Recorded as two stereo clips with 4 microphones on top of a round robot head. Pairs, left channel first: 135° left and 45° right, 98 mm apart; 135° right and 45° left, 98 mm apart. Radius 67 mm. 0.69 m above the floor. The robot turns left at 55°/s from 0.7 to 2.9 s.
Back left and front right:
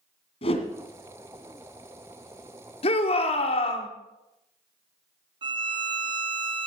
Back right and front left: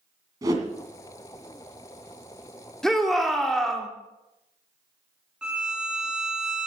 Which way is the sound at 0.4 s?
100° left.